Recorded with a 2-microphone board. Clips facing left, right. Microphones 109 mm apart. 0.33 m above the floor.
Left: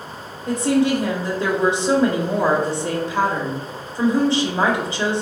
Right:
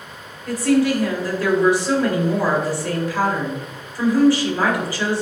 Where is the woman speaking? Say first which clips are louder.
Right 1 dB; 25° left (ahead or behind), 1.0 m.